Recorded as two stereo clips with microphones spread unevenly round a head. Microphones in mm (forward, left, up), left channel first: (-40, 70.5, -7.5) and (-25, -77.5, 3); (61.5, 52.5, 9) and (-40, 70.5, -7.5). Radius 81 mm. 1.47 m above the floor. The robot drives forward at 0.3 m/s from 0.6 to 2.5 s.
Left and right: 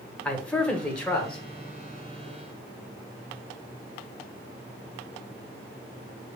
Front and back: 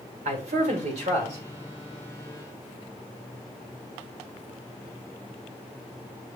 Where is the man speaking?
Straight behind, 1.7 m.